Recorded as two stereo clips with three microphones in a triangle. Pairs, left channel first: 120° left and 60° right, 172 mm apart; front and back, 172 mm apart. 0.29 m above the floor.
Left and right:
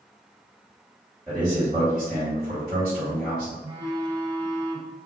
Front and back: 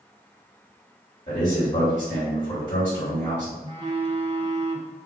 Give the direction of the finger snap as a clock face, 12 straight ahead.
I don't hear a finger snap.